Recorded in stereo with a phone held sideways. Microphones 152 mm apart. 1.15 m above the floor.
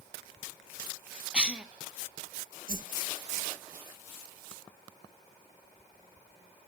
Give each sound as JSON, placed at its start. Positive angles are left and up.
{"t": 1.3, "sound": "a cough", "side_deg": -5, "distance_m": 0.9}
{"t": 2.7, "sound": "a whoosh", "side_deg": -65, "distance_m": 1.0}